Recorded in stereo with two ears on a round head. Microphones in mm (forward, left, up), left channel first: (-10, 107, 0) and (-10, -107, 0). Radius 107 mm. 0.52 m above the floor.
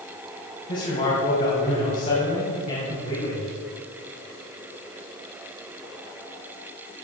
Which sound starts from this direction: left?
A man speaking, at 0.7 s.